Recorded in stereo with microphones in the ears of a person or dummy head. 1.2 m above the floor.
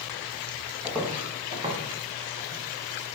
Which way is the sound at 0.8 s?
10° right (ahead or behind).